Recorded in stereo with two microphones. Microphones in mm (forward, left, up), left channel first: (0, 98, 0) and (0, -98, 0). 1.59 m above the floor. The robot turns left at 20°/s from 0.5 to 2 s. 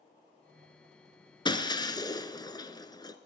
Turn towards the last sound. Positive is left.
turn(degrees=20)  # may be behind; listen again after turning